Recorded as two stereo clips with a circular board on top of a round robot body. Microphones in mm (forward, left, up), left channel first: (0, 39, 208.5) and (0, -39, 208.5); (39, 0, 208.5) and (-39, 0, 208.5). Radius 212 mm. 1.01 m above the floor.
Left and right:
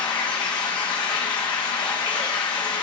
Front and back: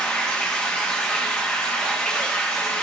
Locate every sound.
0.0 s running water: 75° left, 0.9 m